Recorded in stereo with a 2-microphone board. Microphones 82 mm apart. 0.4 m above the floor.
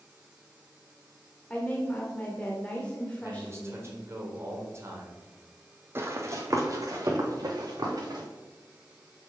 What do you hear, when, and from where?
1.5 s a woman speaking: 15° left (ahead or behind), 1.1 m
3.2 s a man speaking: 35° right (ahead or behind), 1.6 m
6.0 s running footsteps: 30° right (ahead or behind), 0.9 m; by 8.2 s 55° right (ahead or behind), 2 m